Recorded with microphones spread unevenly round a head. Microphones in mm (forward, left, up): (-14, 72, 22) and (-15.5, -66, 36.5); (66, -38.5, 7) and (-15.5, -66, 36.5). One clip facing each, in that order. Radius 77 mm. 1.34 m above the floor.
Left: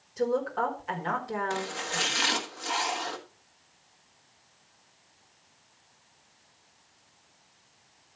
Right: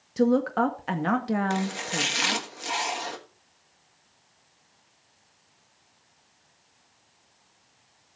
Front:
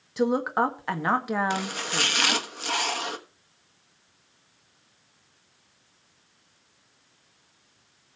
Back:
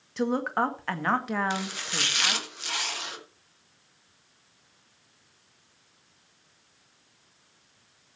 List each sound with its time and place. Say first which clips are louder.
0.2 s a woman speaking: right 6 dB, front 3 dB; 60° right, 1.6 m
1.5 s chopping: right 4 dB, front 3 dB; 20° right, 1.4 m